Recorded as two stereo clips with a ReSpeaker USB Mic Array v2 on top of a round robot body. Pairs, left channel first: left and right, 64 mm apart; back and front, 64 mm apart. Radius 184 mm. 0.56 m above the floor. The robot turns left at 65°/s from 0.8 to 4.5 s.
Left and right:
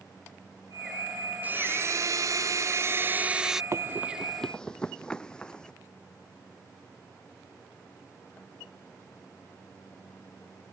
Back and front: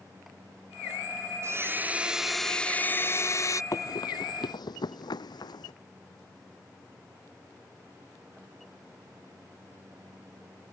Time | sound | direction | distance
1.4 | a blender | 30° right | ?
3.7 | running footsteps | 140° right | ?